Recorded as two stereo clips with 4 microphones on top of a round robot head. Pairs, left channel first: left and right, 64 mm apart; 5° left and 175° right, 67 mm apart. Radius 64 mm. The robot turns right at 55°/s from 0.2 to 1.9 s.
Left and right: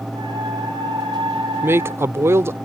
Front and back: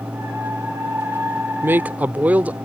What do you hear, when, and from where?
1.6 s a man speaking: 130° right; by 2.5 s 115° right